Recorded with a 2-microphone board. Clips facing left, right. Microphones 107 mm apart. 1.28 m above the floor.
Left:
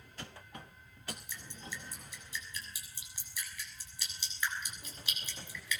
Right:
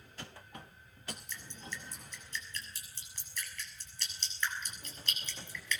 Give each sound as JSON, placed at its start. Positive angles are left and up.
{"t": 1.1, "sound": "dripping", "side_deg": 10, "distance_m": 6.5}